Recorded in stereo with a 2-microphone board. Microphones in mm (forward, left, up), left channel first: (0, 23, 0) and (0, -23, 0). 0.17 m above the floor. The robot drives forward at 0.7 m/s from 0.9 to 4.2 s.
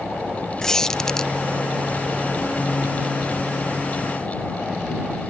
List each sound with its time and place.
0.6 s a squeak: 10° left (ahead or behind)